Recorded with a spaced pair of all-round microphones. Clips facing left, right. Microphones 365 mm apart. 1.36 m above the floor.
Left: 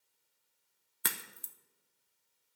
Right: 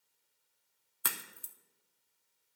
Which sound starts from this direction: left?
A crack, at 1.0 s.